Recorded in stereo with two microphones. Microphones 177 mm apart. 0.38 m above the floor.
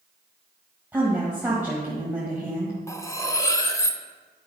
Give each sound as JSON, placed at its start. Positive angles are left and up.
{"t": 0.9, "sound": "a woman speaking", "side_deg": -10, "distance_m": 1.8}
{"t": 2.9, "sound": "cutlery clinking", "side_deg": 20, "distance_m": 0.6}